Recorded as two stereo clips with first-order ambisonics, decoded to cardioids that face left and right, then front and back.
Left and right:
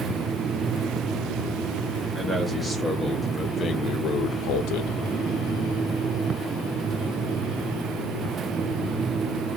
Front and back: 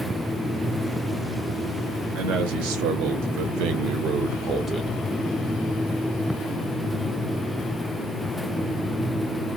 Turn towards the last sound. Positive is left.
turn(degrees=90)